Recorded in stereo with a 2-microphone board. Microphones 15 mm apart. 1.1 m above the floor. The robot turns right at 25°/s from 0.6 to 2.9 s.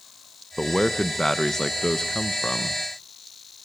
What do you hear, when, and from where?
0.6 s a man speaking: 20° left, 0.9 m; by 2.8 s 75° left, 0.9 m